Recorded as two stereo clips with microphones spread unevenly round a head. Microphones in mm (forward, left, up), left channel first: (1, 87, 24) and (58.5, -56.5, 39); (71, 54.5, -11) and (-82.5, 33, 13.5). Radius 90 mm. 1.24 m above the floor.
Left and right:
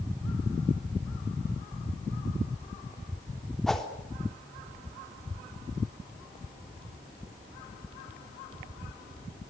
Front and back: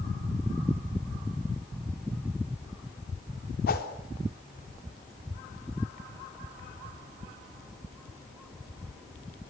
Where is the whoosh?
25° left, 3.5 m.